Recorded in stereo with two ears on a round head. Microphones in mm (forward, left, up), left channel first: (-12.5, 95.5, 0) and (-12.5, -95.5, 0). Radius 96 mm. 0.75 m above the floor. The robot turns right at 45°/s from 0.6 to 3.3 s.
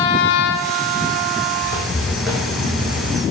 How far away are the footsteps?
About 1.9 m.